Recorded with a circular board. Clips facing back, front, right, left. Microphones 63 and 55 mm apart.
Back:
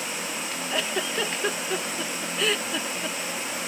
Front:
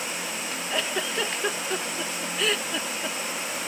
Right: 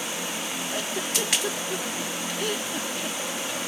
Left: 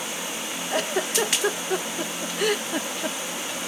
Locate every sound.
0.7 s a giggle: 90° left